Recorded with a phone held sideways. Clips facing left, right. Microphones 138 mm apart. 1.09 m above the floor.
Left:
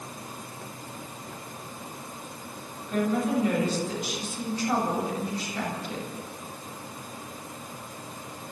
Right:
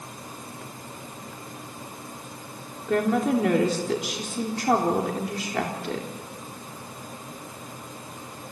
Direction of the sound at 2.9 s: 80° right.